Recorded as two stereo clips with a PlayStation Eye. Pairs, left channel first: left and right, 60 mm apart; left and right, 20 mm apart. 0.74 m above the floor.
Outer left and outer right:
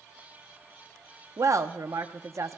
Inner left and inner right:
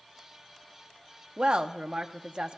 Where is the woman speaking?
60° right (ahead or behind), 0.8 m.